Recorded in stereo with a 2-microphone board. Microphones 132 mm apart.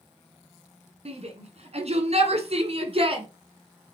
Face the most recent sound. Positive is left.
turn(degrees=-45)  # may be behind; listen again after turning